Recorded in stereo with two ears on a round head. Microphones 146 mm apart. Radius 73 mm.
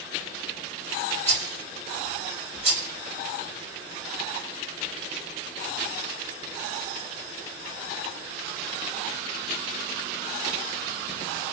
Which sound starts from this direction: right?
A rattle, at 1.3 s.